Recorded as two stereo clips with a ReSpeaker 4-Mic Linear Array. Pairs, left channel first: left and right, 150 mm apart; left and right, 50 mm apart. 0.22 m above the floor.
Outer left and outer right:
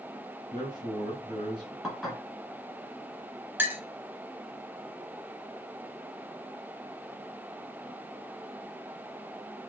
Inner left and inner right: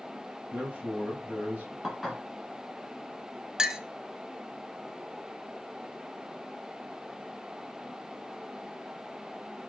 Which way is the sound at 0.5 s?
30° right (ahead or behind).